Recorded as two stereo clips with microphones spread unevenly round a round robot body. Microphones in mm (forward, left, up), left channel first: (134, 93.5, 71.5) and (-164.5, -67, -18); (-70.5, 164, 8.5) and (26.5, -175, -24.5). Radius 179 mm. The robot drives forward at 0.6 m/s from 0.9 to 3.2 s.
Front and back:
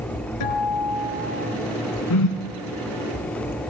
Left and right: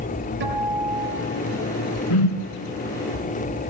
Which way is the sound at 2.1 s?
70° left.